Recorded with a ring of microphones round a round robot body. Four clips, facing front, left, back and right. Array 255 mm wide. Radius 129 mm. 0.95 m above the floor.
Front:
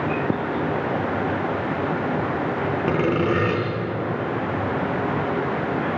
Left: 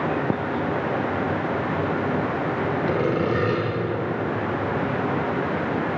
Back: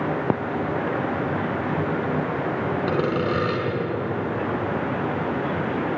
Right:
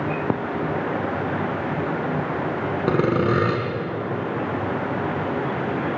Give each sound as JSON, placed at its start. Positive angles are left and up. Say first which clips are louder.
{"t": 2.9, "sound": "sawing", "louder": "right 5 dB, front 3 dB", "azimuth_deg": -75, "distance_m": 4.0}